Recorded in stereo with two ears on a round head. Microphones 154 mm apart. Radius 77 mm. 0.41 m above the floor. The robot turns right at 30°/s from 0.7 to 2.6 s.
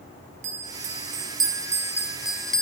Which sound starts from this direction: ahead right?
A bell, at 0.4 s.